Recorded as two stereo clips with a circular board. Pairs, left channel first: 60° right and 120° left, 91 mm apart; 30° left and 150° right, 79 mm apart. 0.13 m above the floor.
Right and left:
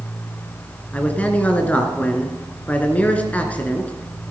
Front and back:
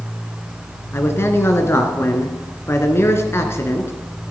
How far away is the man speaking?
About 2 m.